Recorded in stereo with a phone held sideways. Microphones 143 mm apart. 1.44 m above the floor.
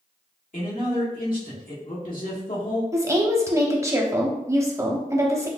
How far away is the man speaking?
About 1.7 m.